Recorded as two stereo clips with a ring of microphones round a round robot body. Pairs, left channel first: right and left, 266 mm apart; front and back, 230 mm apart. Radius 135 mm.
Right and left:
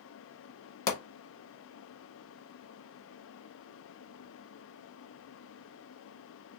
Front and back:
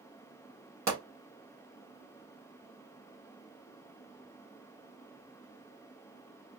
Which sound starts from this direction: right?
A pop, at 0.9 s.